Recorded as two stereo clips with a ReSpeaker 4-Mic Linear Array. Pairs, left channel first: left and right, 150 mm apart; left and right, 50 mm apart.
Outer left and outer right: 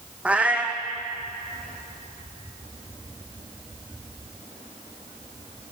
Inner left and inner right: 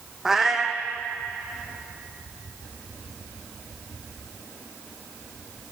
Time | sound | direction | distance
0.2 | a cat meowing | 10° right (ahead or behind) | 0.8 m